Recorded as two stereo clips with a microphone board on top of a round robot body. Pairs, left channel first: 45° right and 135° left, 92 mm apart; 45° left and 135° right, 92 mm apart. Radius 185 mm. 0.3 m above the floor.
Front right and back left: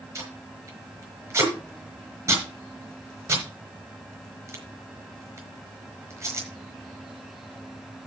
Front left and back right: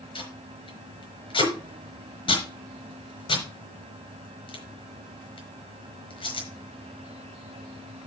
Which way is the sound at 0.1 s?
75° left.